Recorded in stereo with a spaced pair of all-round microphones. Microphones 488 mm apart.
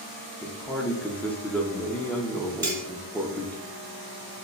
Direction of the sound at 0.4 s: 5° left (ahead or behind).